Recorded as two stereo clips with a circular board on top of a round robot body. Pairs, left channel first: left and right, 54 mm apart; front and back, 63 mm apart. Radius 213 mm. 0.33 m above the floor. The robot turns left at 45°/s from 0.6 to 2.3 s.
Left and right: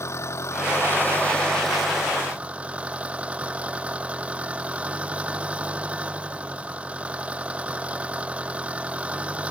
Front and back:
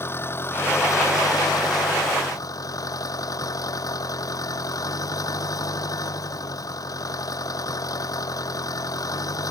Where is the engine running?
50° left; by 9.5 s 25° right.